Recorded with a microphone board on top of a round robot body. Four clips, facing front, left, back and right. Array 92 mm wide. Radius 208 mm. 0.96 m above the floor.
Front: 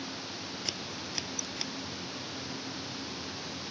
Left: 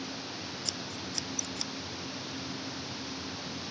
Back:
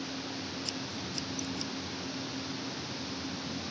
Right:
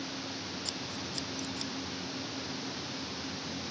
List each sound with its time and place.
0.7 s scissors: 10° left